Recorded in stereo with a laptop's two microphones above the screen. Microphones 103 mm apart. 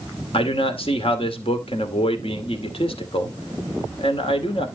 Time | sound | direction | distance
0.3 | a man speaking | 65° left (ahead or behind) | 2.5 m